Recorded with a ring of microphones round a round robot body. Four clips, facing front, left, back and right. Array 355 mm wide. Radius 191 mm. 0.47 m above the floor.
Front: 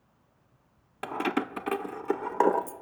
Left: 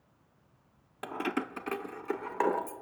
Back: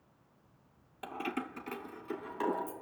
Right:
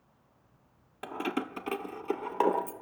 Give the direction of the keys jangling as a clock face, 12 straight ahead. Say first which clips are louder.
Even, front 9 dB; 12 o'clock.